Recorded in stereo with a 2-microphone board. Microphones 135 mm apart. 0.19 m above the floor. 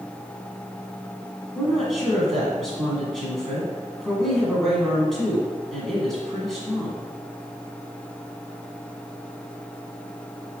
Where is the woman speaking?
5° left (ahead or behind), 1.5 m.